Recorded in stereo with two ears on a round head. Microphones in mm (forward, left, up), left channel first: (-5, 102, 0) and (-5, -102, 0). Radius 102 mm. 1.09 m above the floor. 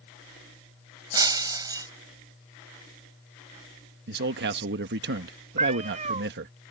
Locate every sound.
1.1 s breaking glass: 15° right (ahead or behind)
4.1 s a man speaking: 50° right (ahead or behind)
5.6 s a cat meowing: 30° right (ahead or behind)